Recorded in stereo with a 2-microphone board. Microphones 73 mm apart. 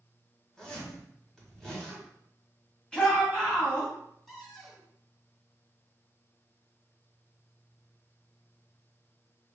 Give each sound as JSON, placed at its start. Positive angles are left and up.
{"t": 0.6, "sound": "a zipper", "side_deg": 5, "distance_m": 1.7}
{"t": 2.9, "sound": "a shout", "side_deg": 10, "distance_m": 1.8}
{"t": 4.3, "sound": "a cupboard door", "side_deg": 0, "distance_m": 2.0}